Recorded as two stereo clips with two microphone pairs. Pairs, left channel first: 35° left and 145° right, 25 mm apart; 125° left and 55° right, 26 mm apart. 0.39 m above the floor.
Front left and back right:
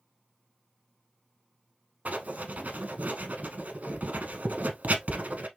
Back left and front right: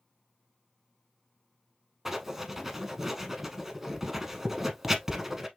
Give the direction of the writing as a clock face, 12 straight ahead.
4 o'clock.